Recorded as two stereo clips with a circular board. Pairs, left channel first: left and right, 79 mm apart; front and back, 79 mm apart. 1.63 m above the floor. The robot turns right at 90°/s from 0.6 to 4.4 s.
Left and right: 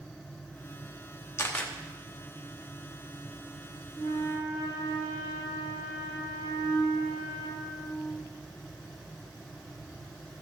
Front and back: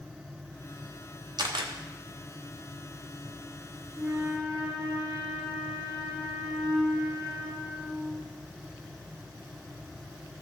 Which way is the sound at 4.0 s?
85° left.